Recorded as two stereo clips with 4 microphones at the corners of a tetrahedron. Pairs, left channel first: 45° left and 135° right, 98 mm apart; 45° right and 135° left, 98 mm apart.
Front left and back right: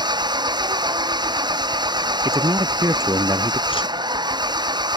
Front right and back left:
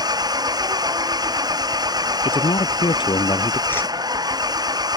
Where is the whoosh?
25° left.